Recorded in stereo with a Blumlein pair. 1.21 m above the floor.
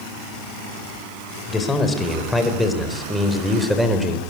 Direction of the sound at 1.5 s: 10° left.